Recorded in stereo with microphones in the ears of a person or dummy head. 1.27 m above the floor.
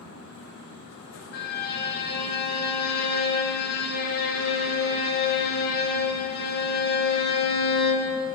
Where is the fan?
75° left (ahead or behind), 1.1 m.